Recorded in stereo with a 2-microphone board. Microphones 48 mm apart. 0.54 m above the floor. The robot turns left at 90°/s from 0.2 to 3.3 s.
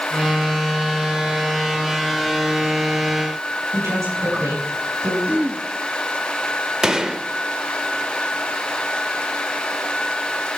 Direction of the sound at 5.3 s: 35° right (ahead or behind).